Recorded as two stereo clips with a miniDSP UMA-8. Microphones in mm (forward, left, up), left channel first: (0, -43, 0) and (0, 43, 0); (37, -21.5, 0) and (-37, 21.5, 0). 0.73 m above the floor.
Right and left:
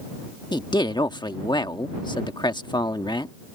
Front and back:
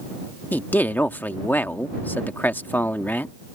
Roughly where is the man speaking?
Right.